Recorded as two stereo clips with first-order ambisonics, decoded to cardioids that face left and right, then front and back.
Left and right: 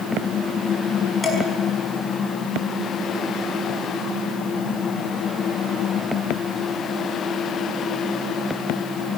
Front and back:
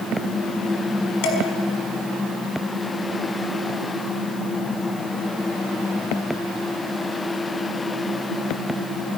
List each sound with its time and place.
1.2 s dishes clattering: 5° left, 5.5 m